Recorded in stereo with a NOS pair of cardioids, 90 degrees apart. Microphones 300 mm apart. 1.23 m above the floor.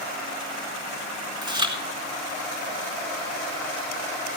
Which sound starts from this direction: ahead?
Chewing, at 1.4 s.